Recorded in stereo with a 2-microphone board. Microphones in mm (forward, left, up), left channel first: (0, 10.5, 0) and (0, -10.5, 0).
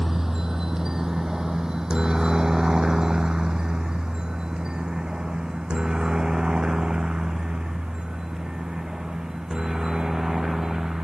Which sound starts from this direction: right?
A helicopter, at 0.0 s.